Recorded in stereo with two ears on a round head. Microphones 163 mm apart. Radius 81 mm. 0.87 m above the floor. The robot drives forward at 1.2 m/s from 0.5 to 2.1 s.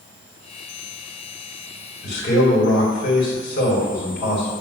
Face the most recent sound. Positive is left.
turn(degrees=50)  # may be behind; listen again after turning